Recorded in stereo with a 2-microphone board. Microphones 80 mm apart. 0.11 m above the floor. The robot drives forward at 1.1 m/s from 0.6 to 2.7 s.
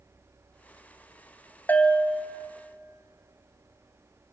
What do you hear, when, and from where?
1.7 s a bell: 25° left (ahead or behind), 0.6 m; by 2.5 s 10° left (ahead or behind), 1.4 m